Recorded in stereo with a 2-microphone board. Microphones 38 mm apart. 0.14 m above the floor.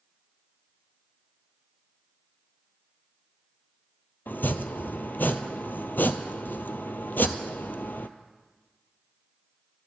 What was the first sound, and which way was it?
Chopping, 70° left (ahead or behind).